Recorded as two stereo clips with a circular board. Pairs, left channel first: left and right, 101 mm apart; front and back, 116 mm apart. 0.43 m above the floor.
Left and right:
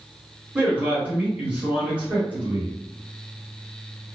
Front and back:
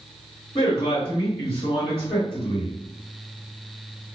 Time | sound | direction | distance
0.6 | a man speaking | 15° right | 1.7 m